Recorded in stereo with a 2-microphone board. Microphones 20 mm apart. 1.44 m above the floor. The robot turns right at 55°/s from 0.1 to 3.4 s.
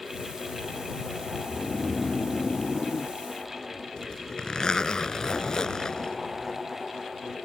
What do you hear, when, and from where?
1.4 s snoring: 5° left (ahead or behind); by 3.9 s 20° left (ahead or behind)
4.0 s a zipper: 40° left (ahead or behind)